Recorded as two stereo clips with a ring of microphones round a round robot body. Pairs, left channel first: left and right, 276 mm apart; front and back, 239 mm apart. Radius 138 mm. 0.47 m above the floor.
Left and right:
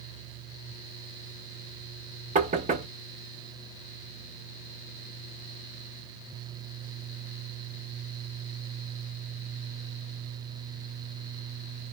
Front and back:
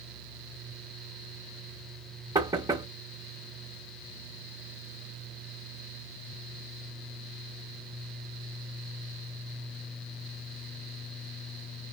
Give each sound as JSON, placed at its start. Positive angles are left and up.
{"t": 2.4, "sound": "knocking", "azimuth_deg": -120, "distance_m": 0.7}